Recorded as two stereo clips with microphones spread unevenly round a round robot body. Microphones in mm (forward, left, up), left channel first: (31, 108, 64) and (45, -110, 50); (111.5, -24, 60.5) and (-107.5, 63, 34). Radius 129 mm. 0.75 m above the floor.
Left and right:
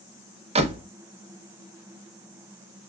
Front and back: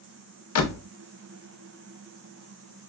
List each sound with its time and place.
0.6 s a door slam: 25° right, 0.7 m